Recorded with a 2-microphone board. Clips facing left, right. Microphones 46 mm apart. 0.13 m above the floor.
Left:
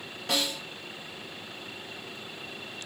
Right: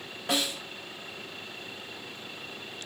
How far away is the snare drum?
About 1.7 m.